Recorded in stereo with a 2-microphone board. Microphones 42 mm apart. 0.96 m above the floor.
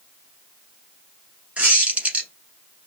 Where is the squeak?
30° right (ahead or behind), 1.2 m.